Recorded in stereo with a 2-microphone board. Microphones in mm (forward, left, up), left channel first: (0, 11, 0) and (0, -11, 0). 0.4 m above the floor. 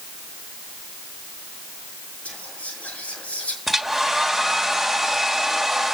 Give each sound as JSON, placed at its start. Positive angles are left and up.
{"t": 2.2, "sound": "whispering", "side_deg": 80, "distance_m": 5.5}
{"t": 3.7, "sound": "a hair dryer", "side_deg": 5, "distance_m": 1.4}